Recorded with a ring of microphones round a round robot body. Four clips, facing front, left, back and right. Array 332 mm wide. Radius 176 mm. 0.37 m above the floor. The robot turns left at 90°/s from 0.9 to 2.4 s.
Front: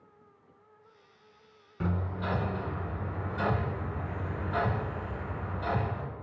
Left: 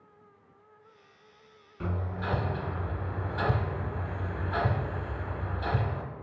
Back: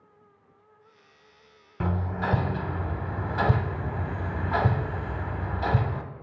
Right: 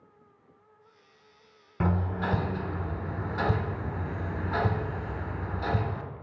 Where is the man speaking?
I don't hear a man speaking.